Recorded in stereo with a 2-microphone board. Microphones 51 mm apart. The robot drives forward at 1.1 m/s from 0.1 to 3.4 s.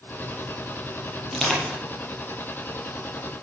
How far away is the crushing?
About 7 m.